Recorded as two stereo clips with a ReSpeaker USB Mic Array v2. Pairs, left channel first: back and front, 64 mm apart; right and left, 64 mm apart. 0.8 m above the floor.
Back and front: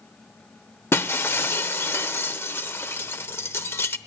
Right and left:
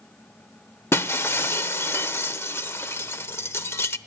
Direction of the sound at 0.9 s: 135° right.